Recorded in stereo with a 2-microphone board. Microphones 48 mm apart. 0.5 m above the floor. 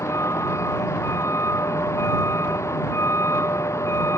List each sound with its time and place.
0.0 s a vehicle: 75° left (ahead or behind)